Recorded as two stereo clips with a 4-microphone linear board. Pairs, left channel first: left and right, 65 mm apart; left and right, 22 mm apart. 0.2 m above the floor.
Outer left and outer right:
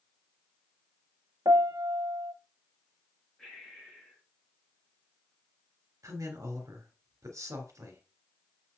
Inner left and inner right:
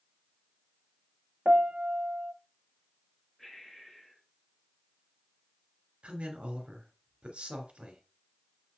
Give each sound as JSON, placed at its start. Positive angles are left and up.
{"t": 1.4, "sound": "a piano", "side_deg": -65, "distance_m": 0.5}
{"t": 3.4, "sound": "breathing", "side_deg": 10, "distance_m": 5.0}
{"t": 6.0, "sound": "a woman speaking", "side_deg": -55, "distance_m": 3.0}